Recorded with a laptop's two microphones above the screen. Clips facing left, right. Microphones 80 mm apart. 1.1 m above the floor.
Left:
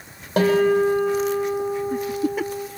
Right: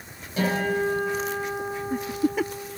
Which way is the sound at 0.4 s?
80° left.